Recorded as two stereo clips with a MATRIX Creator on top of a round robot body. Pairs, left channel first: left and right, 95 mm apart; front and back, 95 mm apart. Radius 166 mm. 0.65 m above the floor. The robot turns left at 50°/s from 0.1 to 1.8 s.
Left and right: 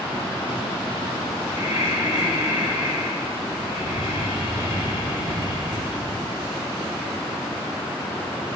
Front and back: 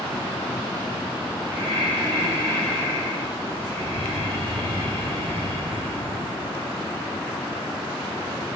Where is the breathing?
140° right, 4 m; by 6.8 s 155° right, 4 m.